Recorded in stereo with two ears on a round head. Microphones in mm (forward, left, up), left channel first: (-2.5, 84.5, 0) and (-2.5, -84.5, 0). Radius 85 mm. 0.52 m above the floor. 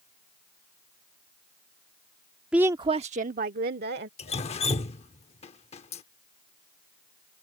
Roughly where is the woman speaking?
Centre.